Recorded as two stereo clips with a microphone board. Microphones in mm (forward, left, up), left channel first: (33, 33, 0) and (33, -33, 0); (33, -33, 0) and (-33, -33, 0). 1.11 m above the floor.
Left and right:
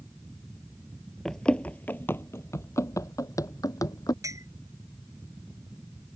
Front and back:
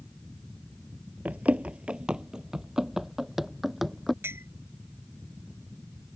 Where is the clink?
125° right.